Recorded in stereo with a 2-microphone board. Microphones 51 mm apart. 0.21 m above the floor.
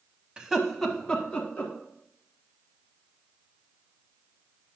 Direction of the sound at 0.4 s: 15° right (ahead or behind).